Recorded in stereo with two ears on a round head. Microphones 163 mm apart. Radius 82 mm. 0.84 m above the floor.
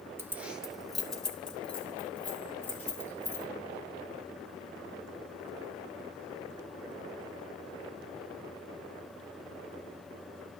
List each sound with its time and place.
0.2 s keys jangling: 15° right (ahead or behind), 0.7 m; by 3.5 s 10° left (ahead or behind), 3 m